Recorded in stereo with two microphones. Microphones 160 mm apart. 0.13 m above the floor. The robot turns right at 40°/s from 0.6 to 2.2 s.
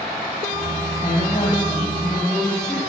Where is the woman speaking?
130° left, 3.5 m; by 2.8 s 175° left, 3.5 m.